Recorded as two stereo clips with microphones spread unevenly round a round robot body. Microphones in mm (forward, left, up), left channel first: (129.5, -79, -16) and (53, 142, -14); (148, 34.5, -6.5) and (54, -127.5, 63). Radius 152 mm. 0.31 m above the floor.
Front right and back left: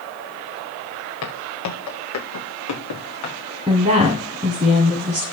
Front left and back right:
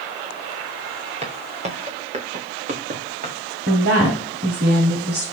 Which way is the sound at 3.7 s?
Straight behind.